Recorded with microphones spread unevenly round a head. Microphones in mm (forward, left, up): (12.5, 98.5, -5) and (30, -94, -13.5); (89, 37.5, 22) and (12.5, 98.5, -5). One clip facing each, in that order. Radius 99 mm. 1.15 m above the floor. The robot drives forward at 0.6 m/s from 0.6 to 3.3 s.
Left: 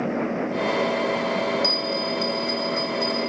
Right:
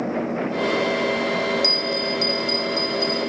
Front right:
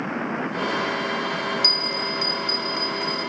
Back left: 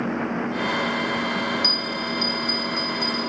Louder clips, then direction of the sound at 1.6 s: Right 1 dB, even; 55° right.